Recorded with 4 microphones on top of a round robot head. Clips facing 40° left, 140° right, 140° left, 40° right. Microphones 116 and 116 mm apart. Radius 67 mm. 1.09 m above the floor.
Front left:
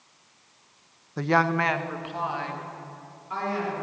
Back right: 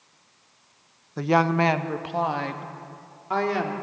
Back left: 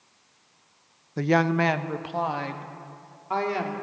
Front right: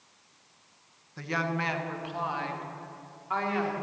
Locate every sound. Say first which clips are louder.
1.2 s a woman speaking: back right 2 dB, back left 10 dB; 130° left, 1.0 m; by 3.7 s 165° right, 3.5 m